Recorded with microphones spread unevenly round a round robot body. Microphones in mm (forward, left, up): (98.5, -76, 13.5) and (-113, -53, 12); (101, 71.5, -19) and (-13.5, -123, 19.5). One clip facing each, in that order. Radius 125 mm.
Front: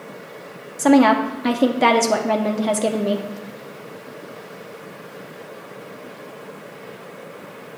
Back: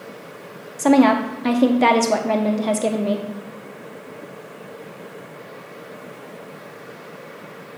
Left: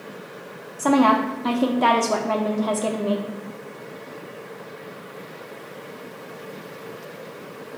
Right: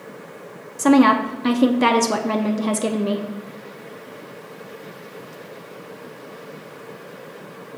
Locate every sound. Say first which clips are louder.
0.8 s a woman speaking: even, right 4 dB; 90° right, 0.6 m